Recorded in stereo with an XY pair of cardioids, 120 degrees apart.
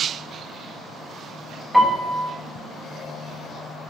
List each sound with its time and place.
1.7 s a piano: straight ahead, 1.9 m